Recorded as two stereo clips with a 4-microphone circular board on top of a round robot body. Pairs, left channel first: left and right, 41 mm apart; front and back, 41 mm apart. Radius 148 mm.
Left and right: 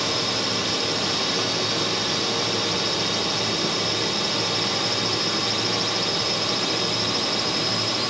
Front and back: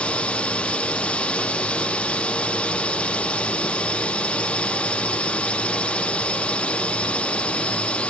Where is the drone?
5° right.